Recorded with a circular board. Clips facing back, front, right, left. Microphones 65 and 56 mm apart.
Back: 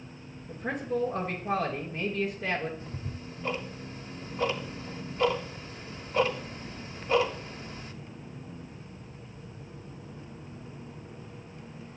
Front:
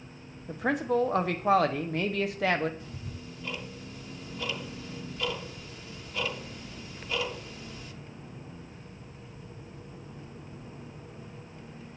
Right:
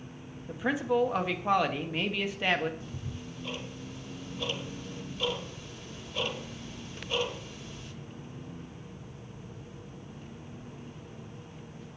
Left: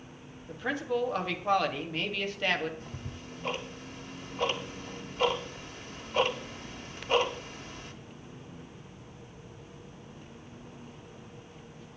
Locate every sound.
0.5 s a man speaking: 10° right, 1.1 m
2.8 s ticking: 125° left, 0.9 m